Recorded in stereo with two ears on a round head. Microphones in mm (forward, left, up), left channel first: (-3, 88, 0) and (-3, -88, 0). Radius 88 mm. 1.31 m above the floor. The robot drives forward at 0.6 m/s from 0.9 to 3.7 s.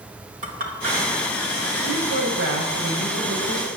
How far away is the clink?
About 2.5 m.